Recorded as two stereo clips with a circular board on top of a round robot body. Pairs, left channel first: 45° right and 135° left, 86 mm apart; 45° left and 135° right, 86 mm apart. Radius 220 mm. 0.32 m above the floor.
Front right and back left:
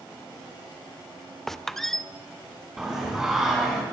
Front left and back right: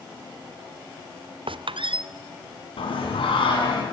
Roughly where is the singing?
Ahead left.